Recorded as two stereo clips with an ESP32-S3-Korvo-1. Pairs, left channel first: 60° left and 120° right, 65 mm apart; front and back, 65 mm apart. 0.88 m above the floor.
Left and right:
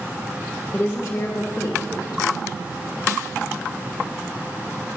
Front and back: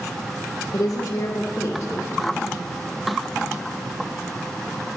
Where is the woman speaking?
10° left, 1.5 m; by 2.5 s 65° left, 1.4 m.